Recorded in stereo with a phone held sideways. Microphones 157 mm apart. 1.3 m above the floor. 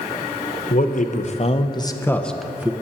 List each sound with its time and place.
0.7 s a man speaking: 60° left (ahead or behind), 1.1 m; by 2.7 s 10° right (ahead or behind), 0.9 m